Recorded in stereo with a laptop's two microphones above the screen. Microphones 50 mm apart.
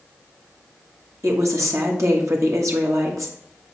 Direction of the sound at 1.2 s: 70° right (ahead or behind).